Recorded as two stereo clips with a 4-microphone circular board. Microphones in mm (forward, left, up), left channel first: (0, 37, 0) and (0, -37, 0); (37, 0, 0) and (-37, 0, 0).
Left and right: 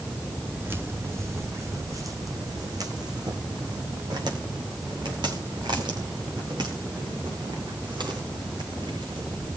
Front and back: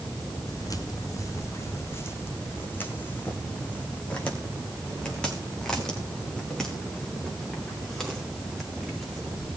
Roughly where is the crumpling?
I don't hear crumpling.